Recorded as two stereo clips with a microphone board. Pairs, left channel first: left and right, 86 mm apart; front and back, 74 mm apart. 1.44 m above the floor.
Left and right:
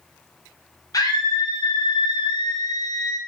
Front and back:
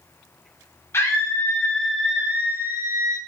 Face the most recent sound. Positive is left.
turn(degrees=135)